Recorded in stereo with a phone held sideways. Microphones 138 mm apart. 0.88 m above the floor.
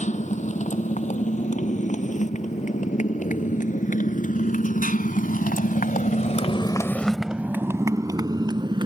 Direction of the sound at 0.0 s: 60° left (ahead or behind).